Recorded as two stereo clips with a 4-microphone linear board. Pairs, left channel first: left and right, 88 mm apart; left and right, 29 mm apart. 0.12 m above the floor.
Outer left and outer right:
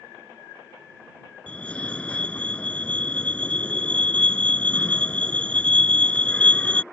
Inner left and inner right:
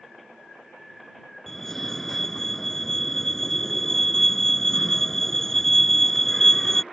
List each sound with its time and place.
1.5 s a fire alarm: 15° left (ahead or behind)